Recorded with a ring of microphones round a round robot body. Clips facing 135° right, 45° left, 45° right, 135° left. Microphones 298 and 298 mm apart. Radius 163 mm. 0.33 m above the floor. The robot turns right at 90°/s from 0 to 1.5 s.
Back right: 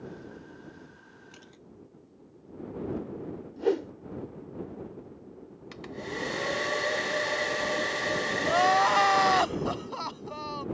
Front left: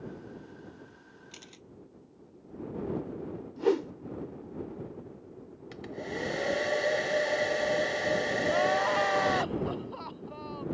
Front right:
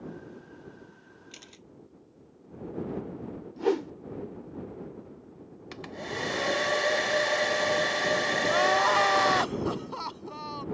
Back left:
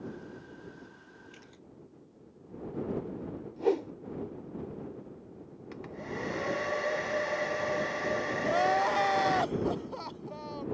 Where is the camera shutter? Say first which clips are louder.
Even, front right 1 dB; 15° right; by 1.7 s straight ahead.